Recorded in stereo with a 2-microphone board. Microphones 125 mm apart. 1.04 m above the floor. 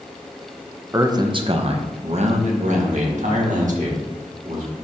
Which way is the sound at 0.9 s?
20° right (ahead or behind).